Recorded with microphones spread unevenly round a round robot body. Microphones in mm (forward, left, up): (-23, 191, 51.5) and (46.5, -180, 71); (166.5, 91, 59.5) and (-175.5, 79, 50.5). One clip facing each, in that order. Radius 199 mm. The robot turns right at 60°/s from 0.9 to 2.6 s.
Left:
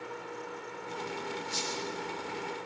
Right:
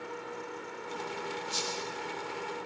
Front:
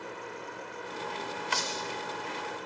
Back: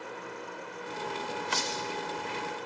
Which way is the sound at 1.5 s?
130° right.